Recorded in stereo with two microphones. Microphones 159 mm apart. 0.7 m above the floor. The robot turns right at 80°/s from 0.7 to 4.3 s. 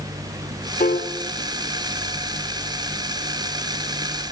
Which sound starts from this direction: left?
A piano, at 0.8 s.